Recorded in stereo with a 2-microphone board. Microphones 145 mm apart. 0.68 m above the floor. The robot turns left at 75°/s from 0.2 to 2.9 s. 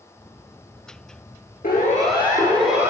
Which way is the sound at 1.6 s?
80° left.